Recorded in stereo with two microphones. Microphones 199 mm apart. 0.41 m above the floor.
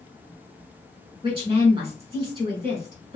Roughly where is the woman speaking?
Right.